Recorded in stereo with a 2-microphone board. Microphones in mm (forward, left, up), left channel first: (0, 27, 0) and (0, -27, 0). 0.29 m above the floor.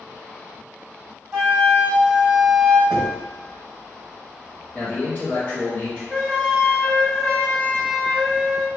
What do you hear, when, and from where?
1.3 s a flute: 15° right (ahead or behind), 1.2 m
2.9 s knocking: 20° right (ahead or behind), 1.4 m
4.7 s a man speaking: 25° left (ahead or behind), 1.3 m
6.1 s a flute: 10° left (ahead or behind), 0.8 m